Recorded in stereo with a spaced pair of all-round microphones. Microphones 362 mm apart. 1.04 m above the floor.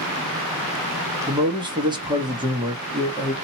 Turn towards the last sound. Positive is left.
turn(degrees=-10)  # may be behind; listen again after turning